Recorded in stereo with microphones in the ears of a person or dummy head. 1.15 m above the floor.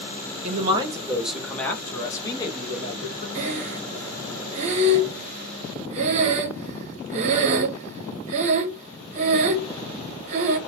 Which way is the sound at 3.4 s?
40° right (ahead or behind).